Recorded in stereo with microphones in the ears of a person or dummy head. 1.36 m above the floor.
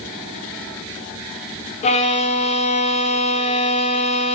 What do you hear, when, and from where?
1.8 s a violin: 35° left (ahead or behind), 0.8 m